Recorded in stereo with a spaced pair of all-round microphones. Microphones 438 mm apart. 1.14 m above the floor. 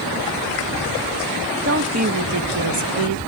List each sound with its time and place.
1.6 s a woman speaking: 30° right (ahead or behind), 1.2 m; by 3.2 s 75° right (ahead or behind), 1.0 m